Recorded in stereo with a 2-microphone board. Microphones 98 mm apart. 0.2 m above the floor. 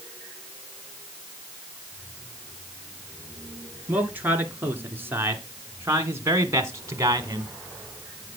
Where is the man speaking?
20° right (ahead or behind), 3 m; by 7.5 s 35° right (ahead or behind), 1.5 m.